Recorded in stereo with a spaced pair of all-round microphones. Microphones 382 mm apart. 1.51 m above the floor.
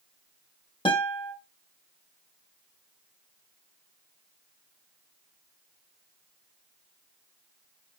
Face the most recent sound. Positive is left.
turn(degrees=15)  # may be behind; listen again after turning